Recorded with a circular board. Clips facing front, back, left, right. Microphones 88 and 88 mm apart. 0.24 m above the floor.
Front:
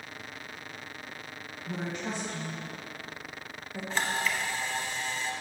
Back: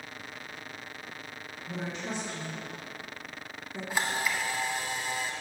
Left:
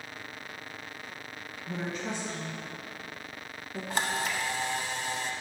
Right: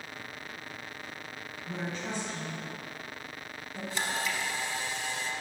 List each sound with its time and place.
1.7 s a woman speaking: straight ahead, 1.8 m; by 3.8 s 80° left, 1.8 m
3.9 s a camera shutter: 105° left, 0.7 m